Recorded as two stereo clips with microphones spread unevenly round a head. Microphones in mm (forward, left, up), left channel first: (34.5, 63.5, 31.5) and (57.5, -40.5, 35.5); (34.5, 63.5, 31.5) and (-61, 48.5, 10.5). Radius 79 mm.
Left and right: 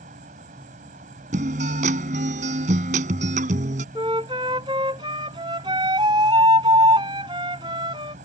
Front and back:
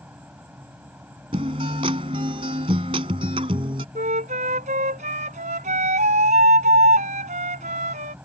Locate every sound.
0.0 s an insect: 90° right
1.3 s a guitar: 110° right
4.0 s a flute: 140° right